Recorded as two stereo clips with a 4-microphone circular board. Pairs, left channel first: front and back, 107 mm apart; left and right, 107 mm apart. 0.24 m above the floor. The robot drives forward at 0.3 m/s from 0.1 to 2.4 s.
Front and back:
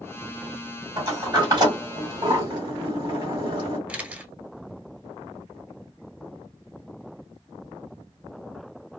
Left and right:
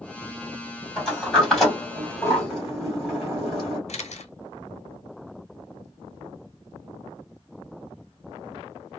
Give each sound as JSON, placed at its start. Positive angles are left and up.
{"t": 1.0, "sound": "a sliding door", "azimuth_deg": 175, "distance_m": 1.7}
{"t": 3.9, "sound": "a camera shutter", "azimuth_deg": 105, "distance_m": 0.6}